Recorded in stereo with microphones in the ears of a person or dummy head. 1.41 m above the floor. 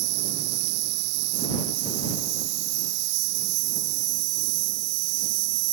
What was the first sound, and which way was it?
An insect, 65° right (ahead or behind).